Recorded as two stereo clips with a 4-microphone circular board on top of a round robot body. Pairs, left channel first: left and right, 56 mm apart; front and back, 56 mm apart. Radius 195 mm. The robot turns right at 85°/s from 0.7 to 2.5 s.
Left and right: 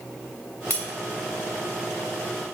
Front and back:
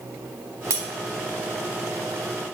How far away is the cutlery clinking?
About 1.8 m.